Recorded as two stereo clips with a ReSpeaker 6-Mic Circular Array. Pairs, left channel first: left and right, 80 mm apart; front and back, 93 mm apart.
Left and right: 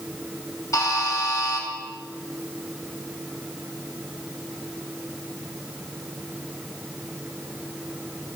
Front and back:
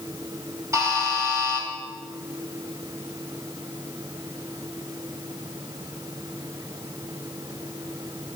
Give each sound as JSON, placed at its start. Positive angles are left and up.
{"t": 0.7, "sound": "a buzzer", "azimuth_deg": 130, "distance_m": 2.5}